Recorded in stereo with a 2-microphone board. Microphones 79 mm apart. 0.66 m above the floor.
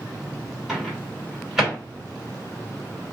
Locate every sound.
0.7 s a microwave: 5° right (ahead or behind), 2 m